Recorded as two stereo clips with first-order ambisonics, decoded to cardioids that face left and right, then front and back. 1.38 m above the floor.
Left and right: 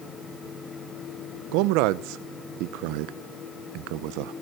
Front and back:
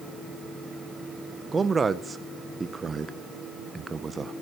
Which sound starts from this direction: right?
A man speaking, at 1.5 s.